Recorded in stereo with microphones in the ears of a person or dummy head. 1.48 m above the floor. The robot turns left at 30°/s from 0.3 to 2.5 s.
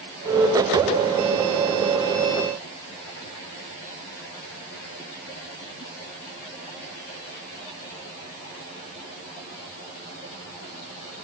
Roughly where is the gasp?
No gasp in this recording.